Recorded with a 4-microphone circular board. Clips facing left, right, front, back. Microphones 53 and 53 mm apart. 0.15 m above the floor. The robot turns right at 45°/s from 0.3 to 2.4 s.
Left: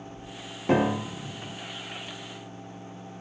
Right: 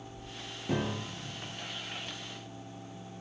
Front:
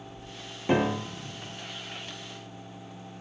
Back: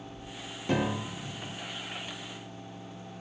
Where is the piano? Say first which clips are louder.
Left 10 dB, front 4 dB; 65° left, 0.6 m; by 1.6 s 105° left, 0.6 m.